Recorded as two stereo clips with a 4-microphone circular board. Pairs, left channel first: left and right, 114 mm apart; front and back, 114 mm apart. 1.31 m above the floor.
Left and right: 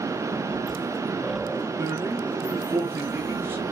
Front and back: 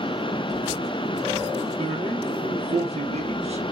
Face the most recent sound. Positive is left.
turn(degrees=-160)